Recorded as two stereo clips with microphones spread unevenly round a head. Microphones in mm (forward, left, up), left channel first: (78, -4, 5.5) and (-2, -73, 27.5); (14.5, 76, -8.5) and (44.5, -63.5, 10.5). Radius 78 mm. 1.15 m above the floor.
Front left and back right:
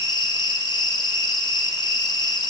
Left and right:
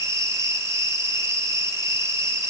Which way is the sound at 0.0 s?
5° right.